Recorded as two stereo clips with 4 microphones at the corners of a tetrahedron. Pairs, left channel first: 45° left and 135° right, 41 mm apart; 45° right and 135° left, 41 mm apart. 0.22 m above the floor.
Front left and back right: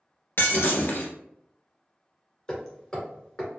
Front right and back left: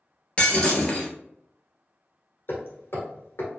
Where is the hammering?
25° right, 1.5 m.